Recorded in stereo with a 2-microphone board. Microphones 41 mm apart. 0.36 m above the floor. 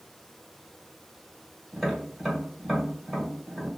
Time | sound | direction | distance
1.7 | tapping | 10° right (ahead or behind) | 1.5 m